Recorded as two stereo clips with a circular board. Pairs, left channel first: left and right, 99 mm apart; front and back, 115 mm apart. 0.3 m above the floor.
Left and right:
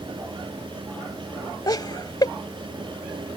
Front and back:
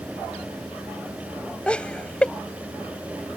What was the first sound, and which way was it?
Laughter, 75° left.